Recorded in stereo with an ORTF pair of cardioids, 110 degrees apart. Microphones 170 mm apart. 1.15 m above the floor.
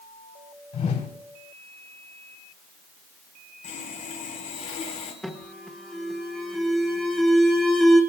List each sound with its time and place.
0.7 s a whoosh: 55° left, 3.5 m
3.6 s sawing: 50° left, 3.5 m
5.2 s an alarm: 5° left, 1.4 m